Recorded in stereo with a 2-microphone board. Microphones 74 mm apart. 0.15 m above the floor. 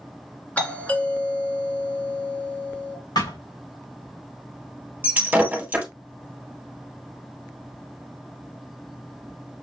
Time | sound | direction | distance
0.6 | a doorbell | 20° left (ahead or behind) | 2 m
3.1 | a thud | 85° left | 3 m
5.0 | breaking glass | 20° right (ahead or behind) | 1.6 m